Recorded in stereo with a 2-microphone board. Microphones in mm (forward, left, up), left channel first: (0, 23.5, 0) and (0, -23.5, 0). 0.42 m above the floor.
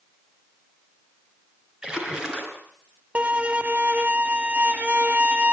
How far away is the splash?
About 4.5 m.